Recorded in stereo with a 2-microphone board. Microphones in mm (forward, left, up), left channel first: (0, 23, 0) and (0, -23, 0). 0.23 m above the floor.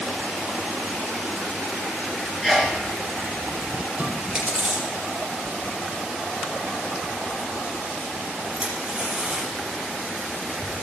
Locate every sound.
2.4 s a sneeze: 10° left (ahead or behind), 3.5 m
4.0 s chewing: 20° right (ahead or behind), 6.5 m